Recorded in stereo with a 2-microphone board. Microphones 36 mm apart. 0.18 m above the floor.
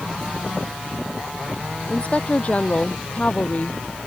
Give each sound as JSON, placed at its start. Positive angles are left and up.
{"t": 1.9, "sound": "a woman speaking", "side_deg": 40}